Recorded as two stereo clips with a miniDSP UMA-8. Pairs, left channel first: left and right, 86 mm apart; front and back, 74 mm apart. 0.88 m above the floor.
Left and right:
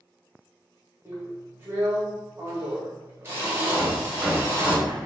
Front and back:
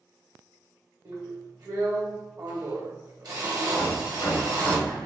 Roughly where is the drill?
Behind right.